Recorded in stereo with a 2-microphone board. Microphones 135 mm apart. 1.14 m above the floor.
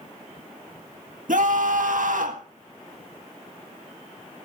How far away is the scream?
About 1.7 m.